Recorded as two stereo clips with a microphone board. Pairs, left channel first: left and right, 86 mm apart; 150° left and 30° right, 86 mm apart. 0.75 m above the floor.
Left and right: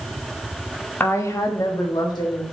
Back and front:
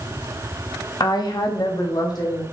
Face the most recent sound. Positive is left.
turn(degrees=115)